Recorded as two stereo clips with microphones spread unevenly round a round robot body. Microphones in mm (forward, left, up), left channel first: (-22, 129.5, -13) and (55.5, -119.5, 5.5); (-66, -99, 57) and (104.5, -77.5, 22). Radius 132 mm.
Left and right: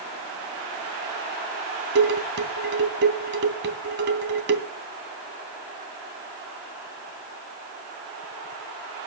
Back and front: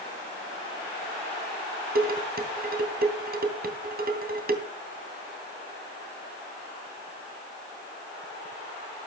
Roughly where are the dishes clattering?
Ahead.